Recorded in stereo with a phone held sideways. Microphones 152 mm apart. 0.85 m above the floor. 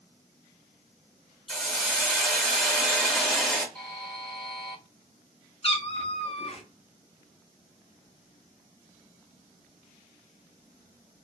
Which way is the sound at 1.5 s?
5° left (ahead or behind).